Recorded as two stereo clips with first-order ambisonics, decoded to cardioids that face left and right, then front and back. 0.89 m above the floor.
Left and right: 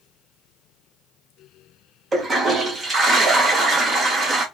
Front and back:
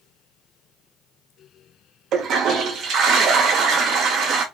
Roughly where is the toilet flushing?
Behind right.